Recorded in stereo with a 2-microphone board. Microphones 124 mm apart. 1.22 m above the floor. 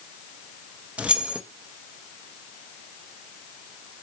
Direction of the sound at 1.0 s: 10° right (ahead or behind).